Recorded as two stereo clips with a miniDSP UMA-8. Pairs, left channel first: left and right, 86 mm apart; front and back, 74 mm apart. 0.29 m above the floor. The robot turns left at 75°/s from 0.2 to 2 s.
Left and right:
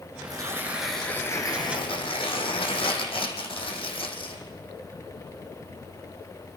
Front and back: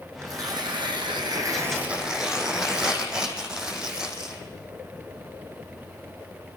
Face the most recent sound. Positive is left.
turn(degrees=100)